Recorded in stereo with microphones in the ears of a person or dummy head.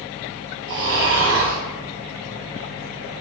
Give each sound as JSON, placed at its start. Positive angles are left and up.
{"t": 0.7, "sound": "snoring", "side_deg": -60, "distance_m": 0.9}